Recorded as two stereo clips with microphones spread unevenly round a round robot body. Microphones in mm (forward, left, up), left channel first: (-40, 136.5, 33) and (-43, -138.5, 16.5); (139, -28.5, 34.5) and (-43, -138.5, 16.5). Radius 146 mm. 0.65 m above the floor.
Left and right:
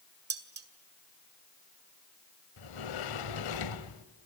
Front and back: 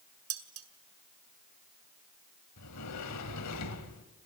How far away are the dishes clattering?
About 2 m.